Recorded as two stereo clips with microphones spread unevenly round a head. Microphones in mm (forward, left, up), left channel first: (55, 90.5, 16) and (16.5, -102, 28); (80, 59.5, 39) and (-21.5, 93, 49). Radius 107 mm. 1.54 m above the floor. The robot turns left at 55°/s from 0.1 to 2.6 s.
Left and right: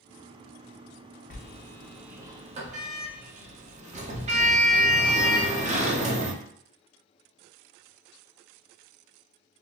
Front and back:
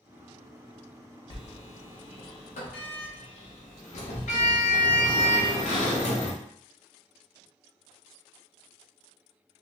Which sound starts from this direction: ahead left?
A sliding door, at 1.3 s.